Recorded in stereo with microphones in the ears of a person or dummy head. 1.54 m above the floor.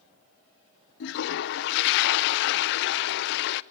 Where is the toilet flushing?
65° left (ahead or behind), 0.7 m.